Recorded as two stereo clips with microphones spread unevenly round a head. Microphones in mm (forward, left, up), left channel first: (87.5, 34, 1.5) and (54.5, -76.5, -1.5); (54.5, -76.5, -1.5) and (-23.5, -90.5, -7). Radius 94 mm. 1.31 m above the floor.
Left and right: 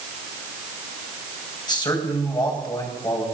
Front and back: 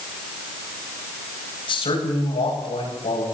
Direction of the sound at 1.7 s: 20° left.